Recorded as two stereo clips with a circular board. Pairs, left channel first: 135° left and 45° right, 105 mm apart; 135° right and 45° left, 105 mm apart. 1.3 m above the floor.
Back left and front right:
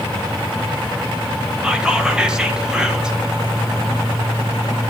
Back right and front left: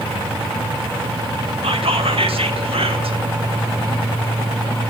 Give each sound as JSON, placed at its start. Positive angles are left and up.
{"t": 1.6, "sound": "whispering", "azimuth_deg": 35, "distance_m": 1.2}